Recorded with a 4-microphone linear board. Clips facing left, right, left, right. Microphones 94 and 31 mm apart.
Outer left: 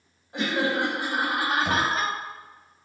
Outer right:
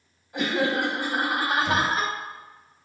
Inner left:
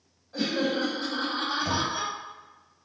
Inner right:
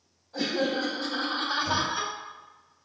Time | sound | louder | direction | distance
0.3 | laughter | outer right 1 dB, even | 30° left (ahead or behind) | 1.3 m
1.6 | knocking | outer right 1 dB, inner right 1 dB | 50° left (ahead or behind) | 1.7 m